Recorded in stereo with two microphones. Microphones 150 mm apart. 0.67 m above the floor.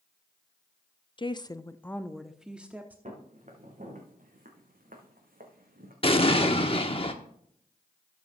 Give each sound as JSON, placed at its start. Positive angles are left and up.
{"t": 1.2, "sound": "a woman speaking", "side_deg": 35, "distance_m": 0.5}
{"t": 3.0, "sound": "footsteps", "side_deg": -55, "distance_m": 3.5}
{"t": 6.0, "sound": "an explosion", "side_deg": 40, "distance_m": 1.0}